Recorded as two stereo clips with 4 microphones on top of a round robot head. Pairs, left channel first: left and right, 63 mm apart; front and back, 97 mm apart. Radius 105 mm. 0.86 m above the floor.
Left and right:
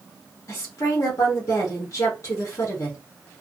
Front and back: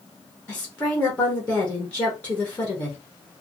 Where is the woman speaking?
70° left, 1.3 m.